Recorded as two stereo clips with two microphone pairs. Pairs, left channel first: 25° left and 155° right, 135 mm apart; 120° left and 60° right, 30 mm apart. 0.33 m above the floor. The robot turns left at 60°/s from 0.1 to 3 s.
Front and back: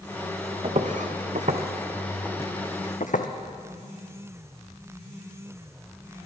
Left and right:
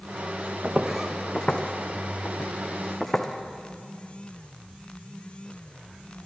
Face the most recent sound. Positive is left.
turn(degrees=25)